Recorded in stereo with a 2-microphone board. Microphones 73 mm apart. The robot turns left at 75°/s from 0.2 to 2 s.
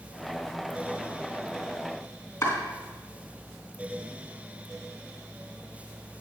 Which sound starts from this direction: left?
Chopping, at 2.4 s.